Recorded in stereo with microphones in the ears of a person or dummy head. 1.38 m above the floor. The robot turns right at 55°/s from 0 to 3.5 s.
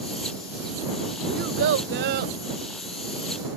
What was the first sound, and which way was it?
A child speaking, 115° right.